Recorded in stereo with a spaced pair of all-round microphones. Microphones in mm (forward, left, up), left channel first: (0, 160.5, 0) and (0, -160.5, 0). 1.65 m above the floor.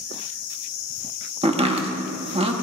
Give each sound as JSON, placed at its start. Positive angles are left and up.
{"t": 1.4, "sound": "chopping", "side_deg": -20, "distance_m": 1.1}